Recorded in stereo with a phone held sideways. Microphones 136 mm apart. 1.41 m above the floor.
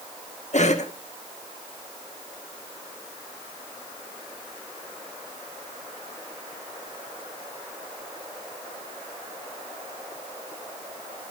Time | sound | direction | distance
0.5 | a cough | 55° left (ahead or behind) | 1.5 m